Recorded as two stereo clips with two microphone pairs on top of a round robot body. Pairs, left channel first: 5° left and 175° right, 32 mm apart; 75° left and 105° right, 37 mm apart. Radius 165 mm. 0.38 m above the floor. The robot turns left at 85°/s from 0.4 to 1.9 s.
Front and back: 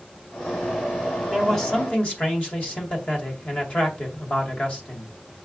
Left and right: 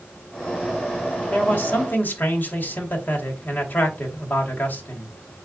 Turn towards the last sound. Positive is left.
turn(degrees=55)